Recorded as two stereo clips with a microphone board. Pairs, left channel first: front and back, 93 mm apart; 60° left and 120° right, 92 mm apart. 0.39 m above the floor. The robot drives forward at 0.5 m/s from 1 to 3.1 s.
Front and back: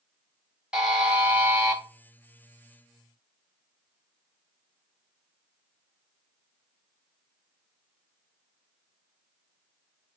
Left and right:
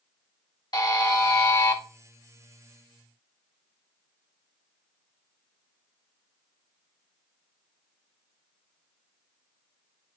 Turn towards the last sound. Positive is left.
turn(degrees=145)